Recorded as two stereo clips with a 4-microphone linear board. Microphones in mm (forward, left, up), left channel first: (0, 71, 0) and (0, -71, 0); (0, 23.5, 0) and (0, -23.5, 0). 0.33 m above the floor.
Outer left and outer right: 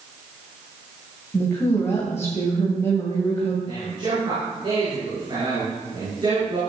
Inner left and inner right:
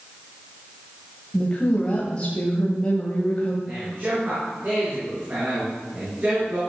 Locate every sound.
1.3 s a woman speaking: 20° left (ahead or behind), 2 m
3.7 s a man speaking: 35° right (ahead or behind), 5.5 m